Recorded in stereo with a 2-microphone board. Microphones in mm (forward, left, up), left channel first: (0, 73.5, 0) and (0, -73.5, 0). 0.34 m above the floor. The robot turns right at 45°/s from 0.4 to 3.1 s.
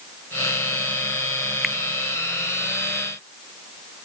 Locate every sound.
1.6 s a finger snap: centre (ahead or behind); by 1.8 s 5° left (ahead or behind)